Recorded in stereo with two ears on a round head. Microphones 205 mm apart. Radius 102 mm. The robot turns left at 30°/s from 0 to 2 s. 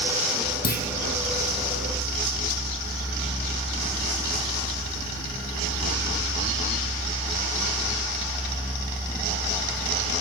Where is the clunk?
40° left (ahead or behind), 4 m; by 0.9 s 45° left (ahead or behind), 4 m.